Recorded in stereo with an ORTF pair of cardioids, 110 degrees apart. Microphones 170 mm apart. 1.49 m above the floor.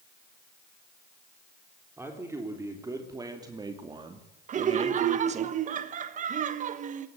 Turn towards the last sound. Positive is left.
turn(degrees=-50)